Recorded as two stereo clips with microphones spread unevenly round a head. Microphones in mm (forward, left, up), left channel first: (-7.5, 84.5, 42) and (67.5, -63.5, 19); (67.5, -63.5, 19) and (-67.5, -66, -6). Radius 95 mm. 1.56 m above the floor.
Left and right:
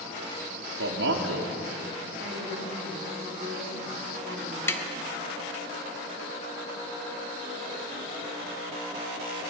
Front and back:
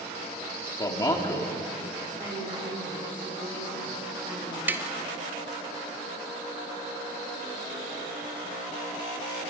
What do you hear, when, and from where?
0.8 s a man speaking: 60° right, 3 m
2.2 s a woman speaking: 120° right, 7 m
4.7 s tapping: 95° left, 1.0 m